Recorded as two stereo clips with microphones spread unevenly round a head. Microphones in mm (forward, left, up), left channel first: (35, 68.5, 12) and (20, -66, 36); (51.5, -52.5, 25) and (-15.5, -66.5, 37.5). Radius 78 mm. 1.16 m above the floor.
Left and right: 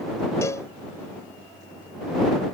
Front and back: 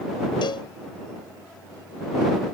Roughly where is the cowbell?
Ahead.